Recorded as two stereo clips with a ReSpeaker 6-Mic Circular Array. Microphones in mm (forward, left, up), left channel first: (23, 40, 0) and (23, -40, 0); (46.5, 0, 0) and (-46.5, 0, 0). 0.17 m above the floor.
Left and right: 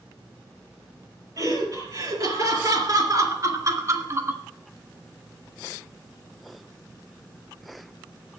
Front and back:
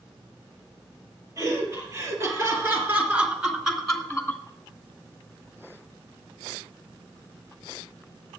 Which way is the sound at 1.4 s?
130° right.